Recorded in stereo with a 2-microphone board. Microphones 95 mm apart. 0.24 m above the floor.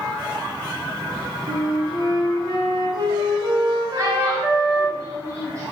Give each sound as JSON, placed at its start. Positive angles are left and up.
{"t": 1.5, "sound": "a flute", "side_deg": -50, "distance_m": 1.5}
{"t": 4.0, "sound": "a child speaking", "side_deg": -30, "distance_m": 1.2}